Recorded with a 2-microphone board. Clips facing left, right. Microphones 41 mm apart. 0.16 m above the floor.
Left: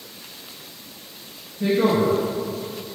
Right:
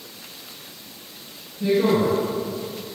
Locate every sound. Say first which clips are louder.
1.6 s a woman speaking: even; 55° left (ahead or behind), 2.0 m